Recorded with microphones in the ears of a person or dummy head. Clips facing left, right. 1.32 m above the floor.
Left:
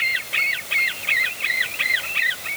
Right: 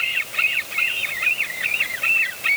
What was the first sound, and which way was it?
Only background noise.